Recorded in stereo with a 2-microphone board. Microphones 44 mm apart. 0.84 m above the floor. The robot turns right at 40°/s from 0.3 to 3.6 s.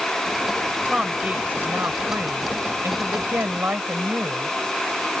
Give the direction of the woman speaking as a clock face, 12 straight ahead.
5 o'clock.